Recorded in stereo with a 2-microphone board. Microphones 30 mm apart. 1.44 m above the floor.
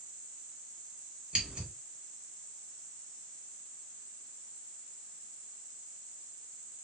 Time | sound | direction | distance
1.3 | scissors | 30° right (ahead or behind) | 1.9 m